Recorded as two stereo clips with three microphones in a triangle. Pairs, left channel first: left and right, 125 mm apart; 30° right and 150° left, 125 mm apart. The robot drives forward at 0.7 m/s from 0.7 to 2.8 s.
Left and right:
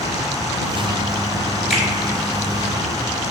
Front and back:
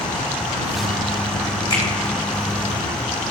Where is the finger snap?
5° left, 1.8 m.